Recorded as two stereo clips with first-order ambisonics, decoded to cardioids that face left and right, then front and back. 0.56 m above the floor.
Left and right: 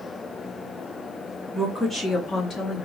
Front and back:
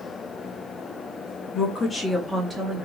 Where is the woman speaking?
Straight ahead, 0.6 m; by 2.9 s 130° left, 0.8 m.